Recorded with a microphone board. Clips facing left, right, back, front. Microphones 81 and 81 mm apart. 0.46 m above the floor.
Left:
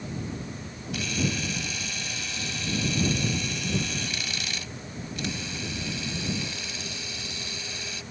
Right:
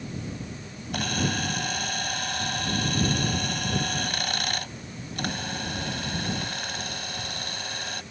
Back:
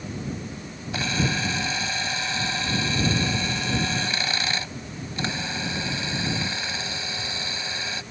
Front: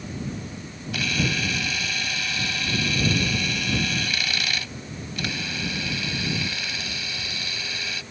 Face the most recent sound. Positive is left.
turn(degrees=-120)